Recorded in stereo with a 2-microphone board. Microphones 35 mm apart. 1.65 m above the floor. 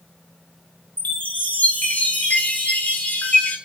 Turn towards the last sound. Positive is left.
turn(degrees=50)  # may be behind; listen again after turning